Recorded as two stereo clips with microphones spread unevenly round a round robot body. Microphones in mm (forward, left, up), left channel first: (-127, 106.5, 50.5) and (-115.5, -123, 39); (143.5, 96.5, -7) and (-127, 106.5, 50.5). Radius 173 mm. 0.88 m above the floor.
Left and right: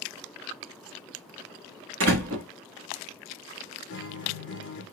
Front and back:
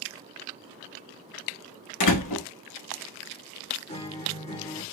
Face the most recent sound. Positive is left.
turn(degrees=55)